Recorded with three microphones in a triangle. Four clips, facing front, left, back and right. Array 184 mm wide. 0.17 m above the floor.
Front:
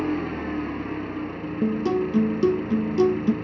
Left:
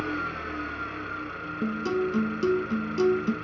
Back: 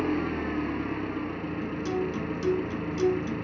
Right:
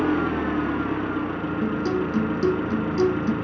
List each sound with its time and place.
0.0 s an engine running: 90° right, 0.7 m
1.6 s a guitar: 15° right, 1.3 m